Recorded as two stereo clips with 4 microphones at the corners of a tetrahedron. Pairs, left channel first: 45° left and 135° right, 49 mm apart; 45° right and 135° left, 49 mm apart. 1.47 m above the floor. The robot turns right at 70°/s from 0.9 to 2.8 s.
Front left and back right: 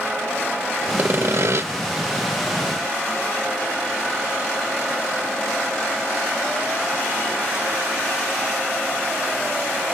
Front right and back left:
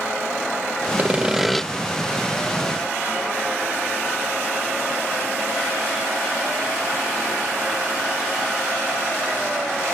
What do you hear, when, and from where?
1.0 s sawing: 175° right; by 1.6 s 130° right